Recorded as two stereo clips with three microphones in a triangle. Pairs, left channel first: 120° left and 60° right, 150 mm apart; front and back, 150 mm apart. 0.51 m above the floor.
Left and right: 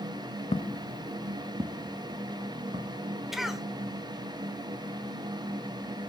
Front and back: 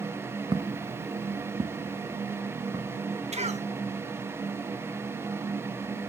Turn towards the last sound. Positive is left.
turn(degrees=-145)